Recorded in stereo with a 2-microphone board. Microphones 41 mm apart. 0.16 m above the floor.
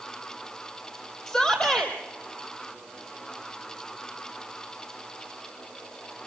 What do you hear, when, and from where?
1.3 s a shout: 25° left (ahead or behind), 6 m